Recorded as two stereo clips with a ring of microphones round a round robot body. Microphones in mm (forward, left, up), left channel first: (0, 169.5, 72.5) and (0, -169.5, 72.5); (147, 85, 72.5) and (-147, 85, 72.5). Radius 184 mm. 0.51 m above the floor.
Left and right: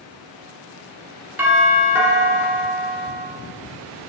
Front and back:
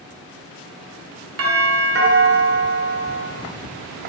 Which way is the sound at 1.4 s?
170° right.